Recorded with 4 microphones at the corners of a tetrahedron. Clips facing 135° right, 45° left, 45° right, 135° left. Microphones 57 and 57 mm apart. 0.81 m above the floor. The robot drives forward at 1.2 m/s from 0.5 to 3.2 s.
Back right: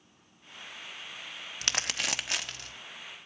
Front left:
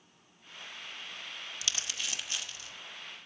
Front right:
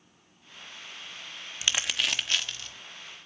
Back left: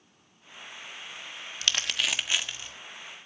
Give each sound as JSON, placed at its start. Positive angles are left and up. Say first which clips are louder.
{"t": 1.6, "sound": "crumpling", "louder": "back right 7 dB, even", "azimuth_deg": -110, "distance_m": 0.9}